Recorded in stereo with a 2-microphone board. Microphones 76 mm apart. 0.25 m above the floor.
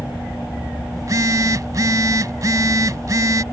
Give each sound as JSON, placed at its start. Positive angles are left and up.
{"t": 1.0, "sound": "a phone buzzing", "side_deg": -50}